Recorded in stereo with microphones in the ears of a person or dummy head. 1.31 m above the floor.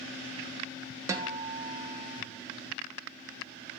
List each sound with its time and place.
1.1 s a guitar: 20° right (ahead or behind), 0.6 m